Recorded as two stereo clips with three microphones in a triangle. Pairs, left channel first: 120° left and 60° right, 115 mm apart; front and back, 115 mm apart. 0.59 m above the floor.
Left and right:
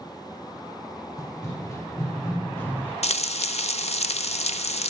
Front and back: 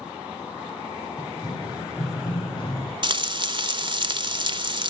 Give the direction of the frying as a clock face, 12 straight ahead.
8 o'clock.